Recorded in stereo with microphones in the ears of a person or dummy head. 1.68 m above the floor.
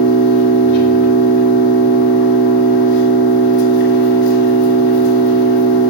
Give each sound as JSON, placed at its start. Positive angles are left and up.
{"t": 0.0, "sound": "an engine running", "side_deg": 60, "distance_m": 1.8}